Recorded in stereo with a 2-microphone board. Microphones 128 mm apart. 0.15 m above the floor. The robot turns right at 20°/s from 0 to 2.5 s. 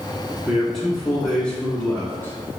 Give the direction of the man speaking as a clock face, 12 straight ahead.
12 o'clock.